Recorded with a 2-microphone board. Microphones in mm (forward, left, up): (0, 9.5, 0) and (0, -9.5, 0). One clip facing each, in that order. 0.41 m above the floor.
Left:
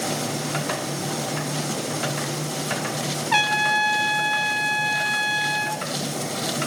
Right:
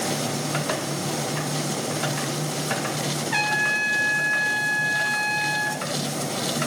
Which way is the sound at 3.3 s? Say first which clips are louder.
Left 3 dB; 75° left (ahead or behind).